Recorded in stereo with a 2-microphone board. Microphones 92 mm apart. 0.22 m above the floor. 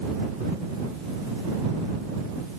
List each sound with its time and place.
Only background noise.